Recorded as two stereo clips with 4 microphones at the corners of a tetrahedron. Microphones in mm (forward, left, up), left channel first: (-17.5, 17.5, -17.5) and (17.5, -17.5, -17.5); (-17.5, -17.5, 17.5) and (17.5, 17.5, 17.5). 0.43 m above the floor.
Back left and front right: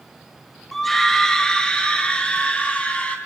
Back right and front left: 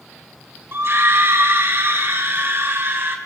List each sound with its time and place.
0.7 s a scream: 50° left, 2 m; by 3.1 s 80° left, 4 m